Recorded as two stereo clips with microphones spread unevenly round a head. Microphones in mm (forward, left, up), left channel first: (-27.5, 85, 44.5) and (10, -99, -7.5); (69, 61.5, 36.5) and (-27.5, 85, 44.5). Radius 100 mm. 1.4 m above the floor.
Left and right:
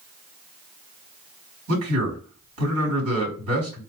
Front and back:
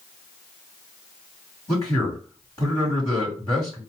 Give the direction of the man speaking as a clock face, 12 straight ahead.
3 o'clock.